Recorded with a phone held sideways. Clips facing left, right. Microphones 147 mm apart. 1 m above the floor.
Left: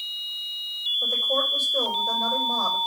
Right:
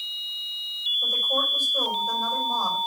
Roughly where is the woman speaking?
Left.